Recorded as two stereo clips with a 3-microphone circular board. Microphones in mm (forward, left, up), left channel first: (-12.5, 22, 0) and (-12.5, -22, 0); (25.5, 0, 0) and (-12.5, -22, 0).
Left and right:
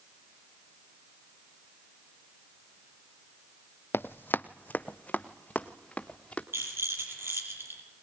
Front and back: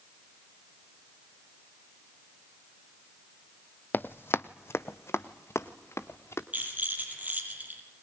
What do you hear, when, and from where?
3.9 s running footsteps: 70° left, 0.5 m; by 6.4 s 25° left, 2.0 m
6.5 s a rattle: 100° right, 6 m